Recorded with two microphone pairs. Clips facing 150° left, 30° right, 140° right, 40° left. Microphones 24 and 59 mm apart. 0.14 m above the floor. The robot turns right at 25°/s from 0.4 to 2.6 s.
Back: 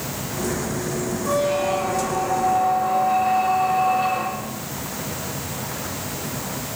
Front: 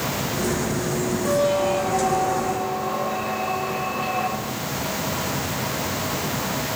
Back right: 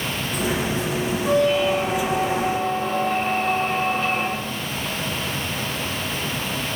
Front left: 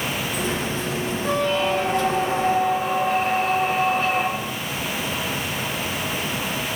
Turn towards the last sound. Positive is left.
turn(degrees=70)